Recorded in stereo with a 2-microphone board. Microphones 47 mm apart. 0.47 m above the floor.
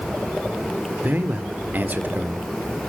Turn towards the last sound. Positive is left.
turn(degrees=-40)  # may be behind; listen again after turning